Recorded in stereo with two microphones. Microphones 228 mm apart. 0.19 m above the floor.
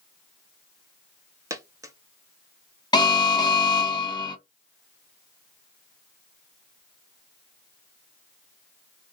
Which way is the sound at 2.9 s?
20° left (ahead or behind).